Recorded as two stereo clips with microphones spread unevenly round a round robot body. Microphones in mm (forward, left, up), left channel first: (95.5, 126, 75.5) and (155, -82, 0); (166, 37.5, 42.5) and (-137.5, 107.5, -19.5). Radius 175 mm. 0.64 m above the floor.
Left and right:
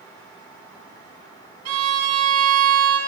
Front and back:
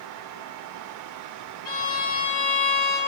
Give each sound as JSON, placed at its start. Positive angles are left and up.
{"t": 1.6, "sound": "a violin", "azimuth_deg": -80, "distance_m": 1.7}